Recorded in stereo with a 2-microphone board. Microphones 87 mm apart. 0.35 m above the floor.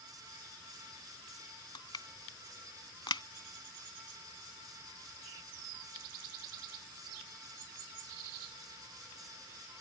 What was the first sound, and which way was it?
Crushing, 65° left (ahead or behind).